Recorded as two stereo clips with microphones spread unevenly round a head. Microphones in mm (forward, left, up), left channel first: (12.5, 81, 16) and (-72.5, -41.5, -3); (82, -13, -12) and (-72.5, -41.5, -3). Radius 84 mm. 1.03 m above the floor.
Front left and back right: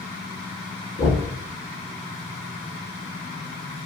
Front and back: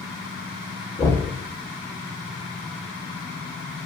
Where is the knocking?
45° left, 1.1 m.